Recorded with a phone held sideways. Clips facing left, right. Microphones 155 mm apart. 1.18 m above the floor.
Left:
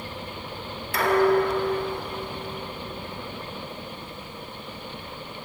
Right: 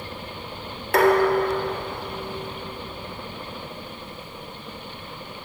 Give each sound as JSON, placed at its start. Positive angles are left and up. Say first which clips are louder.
{"t": 0.9, "sound": "dishes clattering", "louder": "right 2 dB", "side_deg": -70, "distance_m": 3.0}